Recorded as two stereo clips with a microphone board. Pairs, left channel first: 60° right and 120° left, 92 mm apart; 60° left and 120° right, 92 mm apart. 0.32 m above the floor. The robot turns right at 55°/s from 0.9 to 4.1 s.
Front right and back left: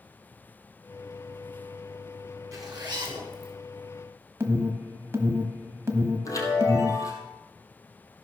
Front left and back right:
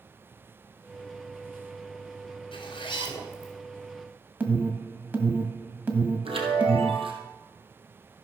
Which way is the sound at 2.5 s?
65° left.